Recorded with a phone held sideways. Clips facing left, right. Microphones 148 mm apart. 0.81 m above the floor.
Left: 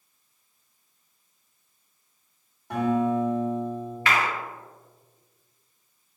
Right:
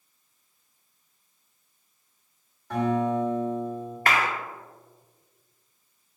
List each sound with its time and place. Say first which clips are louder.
2.7 s a guitar: left 1 dB; 20° left (ahead or behind), 1.9 m
4.1 s a clap: even; 50° right (ahead or behind), 0.5 m